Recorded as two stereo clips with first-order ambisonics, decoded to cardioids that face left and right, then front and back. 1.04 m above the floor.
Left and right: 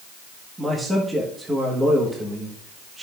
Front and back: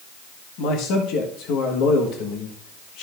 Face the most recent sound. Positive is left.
turn(degrees=-10)